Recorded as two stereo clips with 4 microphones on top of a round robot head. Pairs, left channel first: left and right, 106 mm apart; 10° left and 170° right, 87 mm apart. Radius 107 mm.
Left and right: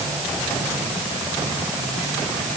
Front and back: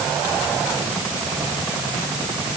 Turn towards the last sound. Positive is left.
No sound to turn to.